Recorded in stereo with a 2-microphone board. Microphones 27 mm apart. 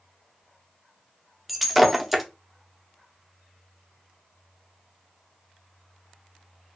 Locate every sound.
1.5 s breaking glass: centre (ahead or behind), 0.5 m